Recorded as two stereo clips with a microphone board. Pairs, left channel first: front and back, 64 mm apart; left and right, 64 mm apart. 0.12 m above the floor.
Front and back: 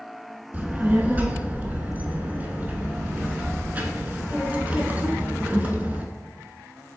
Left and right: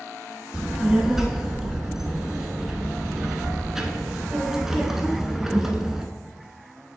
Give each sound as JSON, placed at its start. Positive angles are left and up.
{"t": 0.5, "sound": "a child speaking", "azimuth_deg": -165, "distance_m": 0.7}